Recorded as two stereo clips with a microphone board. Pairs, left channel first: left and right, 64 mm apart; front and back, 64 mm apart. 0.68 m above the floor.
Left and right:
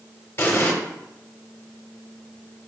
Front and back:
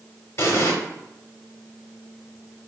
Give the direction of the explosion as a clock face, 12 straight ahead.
11 o'clock.